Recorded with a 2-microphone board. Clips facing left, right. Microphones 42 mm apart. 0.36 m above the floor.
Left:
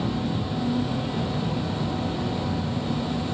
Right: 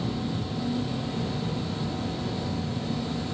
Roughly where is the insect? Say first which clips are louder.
Left 3 dB; left.